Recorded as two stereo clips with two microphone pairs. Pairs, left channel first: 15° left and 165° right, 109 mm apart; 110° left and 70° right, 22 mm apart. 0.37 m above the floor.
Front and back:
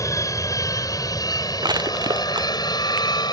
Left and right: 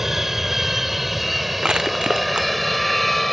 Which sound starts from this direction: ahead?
An aircraft, at 0.0 s.